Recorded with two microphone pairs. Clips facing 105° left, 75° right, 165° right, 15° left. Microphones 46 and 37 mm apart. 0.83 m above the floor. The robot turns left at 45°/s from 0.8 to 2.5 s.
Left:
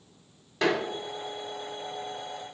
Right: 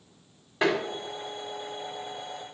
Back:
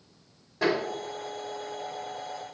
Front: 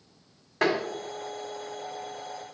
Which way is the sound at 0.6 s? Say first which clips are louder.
Right 1 dB, front 1 dB; 5° right.